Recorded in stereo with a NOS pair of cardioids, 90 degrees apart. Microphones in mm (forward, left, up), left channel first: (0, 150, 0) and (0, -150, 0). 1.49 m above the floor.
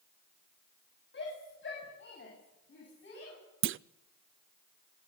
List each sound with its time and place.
1.1 s a shout: 40° left, 8.5 m
3.6 s a clunk: 45° right, 0.5 m